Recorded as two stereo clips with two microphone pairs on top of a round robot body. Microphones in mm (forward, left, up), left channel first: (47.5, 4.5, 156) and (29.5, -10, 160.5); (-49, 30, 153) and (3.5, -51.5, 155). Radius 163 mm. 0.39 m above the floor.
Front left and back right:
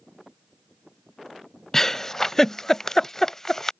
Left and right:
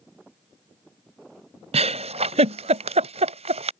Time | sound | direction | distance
1.7 | a giggle | 40° right | ?